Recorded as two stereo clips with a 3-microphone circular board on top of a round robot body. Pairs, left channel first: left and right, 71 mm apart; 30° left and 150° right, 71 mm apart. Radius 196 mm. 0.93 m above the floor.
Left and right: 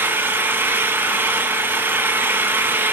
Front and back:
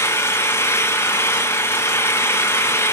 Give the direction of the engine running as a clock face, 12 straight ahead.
1 o'clock.